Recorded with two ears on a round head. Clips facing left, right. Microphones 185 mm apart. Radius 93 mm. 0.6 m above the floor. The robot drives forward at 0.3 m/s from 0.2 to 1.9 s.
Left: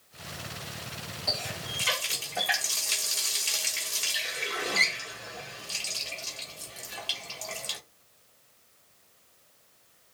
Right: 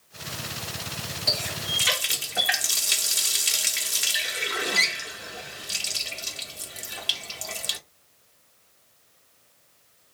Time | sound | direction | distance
1.3 | a running tap | 25° right (ahead or behind) | 0.5 m